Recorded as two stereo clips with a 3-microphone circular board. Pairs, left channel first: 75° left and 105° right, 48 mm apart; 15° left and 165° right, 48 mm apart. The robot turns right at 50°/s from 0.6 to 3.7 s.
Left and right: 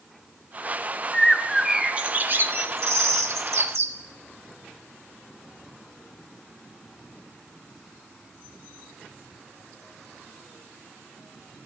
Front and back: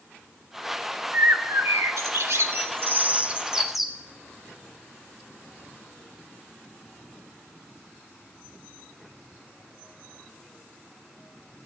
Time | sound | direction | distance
1.1 | a bird | 155° left | 1.6 m